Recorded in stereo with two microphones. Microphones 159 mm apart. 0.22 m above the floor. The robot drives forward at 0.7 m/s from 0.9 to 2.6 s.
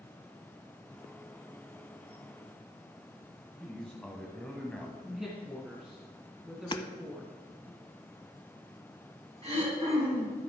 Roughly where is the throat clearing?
Right.